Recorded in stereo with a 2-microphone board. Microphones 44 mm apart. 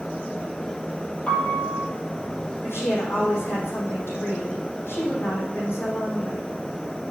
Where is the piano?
35° left (ahead or behind), 3 m.